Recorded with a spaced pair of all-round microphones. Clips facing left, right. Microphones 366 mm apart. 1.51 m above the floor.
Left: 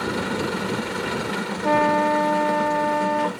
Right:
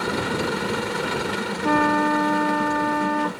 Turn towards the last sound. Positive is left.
turn(degrees=-20)  # may be behind; listen again after turning